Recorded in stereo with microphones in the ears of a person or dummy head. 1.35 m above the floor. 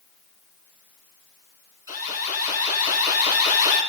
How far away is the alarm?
About 5 m.